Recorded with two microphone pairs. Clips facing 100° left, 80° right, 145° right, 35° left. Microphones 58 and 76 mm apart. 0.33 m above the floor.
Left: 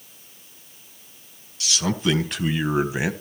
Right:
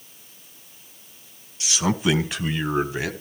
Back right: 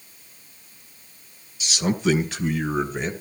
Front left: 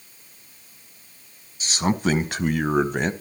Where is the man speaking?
10° right, 2 m; by 3.1 s 35° left, 1.6 m.